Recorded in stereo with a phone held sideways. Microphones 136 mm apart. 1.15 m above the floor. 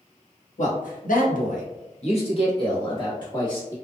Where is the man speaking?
65° left (ahead or behind), 0.9 m; by 3.8 s 25° left (ahead or behind), 1.8 m.